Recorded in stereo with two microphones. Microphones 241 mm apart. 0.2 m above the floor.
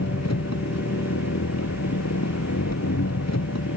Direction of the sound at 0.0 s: 80° left.